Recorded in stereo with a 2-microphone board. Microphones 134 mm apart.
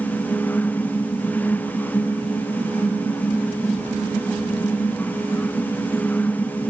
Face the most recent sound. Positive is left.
No sound to turn to.